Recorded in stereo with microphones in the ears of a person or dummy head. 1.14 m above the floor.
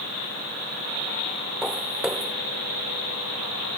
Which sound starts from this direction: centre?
Footsteps, at 1.6 s.